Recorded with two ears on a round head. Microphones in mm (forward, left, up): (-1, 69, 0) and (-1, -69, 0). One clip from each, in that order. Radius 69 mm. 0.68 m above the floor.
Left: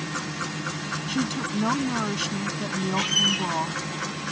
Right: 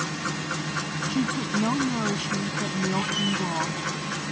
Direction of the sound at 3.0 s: 80° left.